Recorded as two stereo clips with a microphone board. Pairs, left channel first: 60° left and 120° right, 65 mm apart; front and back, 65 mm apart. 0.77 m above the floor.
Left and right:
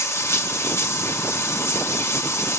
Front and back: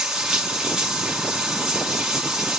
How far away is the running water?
About 1.6 m.